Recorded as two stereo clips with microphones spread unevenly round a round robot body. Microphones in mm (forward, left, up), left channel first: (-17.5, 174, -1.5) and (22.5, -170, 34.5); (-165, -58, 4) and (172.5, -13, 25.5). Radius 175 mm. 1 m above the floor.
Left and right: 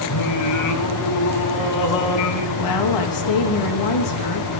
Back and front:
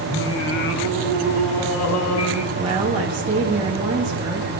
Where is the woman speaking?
85° left, 1.3 m.